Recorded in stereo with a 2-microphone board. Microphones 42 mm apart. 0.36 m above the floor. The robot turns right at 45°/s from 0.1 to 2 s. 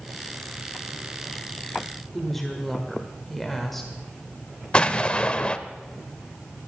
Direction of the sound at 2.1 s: 5° left (ahead or behind).